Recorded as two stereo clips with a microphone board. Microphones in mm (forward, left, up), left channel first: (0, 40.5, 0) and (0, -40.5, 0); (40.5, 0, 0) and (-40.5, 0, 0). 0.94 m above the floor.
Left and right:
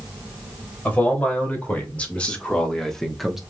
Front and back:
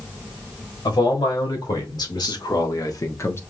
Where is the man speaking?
20° left, 3 m; by 3.4 s 10° right, 1.0 m.